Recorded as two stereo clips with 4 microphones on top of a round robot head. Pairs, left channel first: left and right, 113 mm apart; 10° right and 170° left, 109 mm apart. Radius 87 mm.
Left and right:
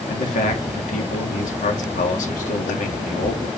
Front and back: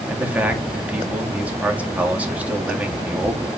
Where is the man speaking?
95° left, 3 m.